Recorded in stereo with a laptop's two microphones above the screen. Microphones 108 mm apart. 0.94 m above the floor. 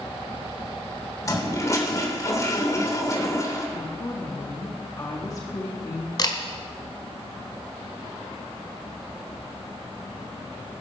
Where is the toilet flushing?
30° left (ahead or behind), 2.5 m.